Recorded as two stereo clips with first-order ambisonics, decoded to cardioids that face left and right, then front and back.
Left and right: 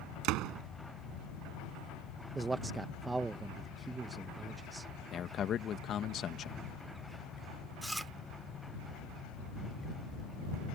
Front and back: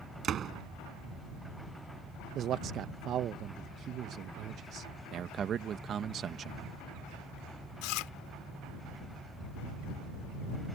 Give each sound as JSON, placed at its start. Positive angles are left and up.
{"t": 0.2, "sound": "a door slam", "azimuth_deg": -120}
{"t": 2.4, "sound": "a man speaking", "azimuth_deg": -160}
{"t": 5.1, "sound": "a man speaking", "azimuth_deg": 135}
{"t": 7.8, "sound": "chewing", "azimuth_deg": -5}